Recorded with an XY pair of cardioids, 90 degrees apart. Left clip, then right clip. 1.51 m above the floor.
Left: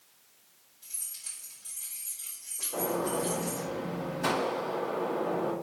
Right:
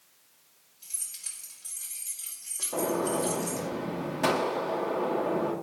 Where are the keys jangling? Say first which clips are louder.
Right 2 dB; 60° right, 3.5 m.